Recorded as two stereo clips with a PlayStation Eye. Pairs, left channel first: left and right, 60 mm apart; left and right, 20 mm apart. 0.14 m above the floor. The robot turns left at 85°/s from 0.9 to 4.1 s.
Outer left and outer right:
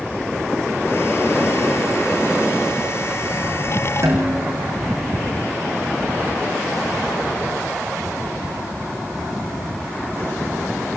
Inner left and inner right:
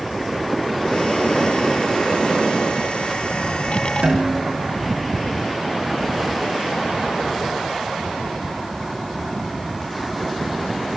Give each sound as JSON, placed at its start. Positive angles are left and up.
{"t": 4.0, "sound": "a snare drum", "side_deg": -55, "distance_m": 7.5}